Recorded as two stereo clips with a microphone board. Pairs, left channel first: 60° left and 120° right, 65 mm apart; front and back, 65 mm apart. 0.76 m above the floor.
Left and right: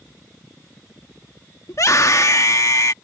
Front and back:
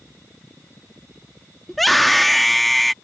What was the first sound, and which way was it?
A scream, 90° left.